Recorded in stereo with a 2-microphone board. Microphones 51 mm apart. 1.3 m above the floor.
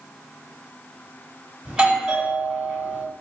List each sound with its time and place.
1.6 s a doorbell: 15° right (ahead or behind), 2 m